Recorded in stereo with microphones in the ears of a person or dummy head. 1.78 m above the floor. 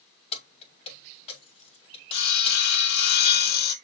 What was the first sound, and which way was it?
Keys jangling, 30° left (ahead or behind).